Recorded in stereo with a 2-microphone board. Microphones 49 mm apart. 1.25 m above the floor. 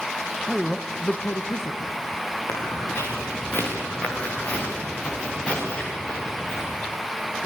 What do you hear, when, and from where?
0.5 s a man speaking: centre (ahead or behind), 1.5 m; by 2.0 s 75° left (ahead or behind), 1.8 m
2.5 s footsteps: 50° left (ahead or behind), 8.5 m; by 6.7 s 10° left (ahead or behind), 9 m